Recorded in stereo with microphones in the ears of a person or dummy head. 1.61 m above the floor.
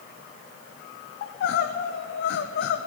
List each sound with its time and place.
1.2 s crying: 60° left (ahead or behind), 0.8 m